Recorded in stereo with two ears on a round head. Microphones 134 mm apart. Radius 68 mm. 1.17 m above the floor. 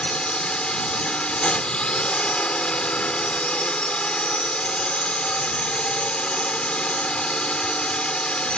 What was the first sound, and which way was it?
A drone, 5° left (ahead or behind).